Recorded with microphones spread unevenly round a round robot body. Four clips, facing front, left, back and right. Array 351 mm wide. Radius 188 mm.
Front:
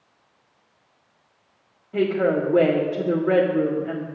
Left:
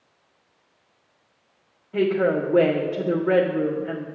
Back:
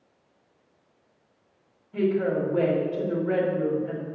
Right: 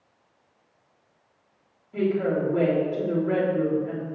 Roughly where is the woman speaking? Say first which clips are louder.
Left 3 dB, front 3 dB; ahead.